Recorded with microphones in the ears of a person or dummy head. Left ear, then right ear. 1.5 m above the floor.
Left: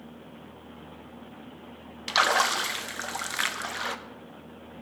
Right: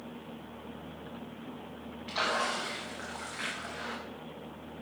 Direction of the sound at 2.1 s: 60° left (ahead or behind).